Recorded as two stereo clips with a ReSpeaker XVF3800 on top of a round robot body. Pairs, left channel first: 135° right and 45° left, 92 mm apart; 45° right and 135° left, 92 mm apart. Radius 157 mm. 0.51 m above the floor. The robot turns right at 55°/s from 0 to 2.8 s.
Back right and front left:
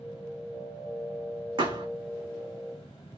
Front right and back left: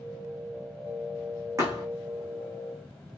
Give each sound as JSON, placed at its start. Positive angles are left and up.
{"t": 1.6, "sound": "a thud", "azimuth_deg": 75, "distance_m": 5.5}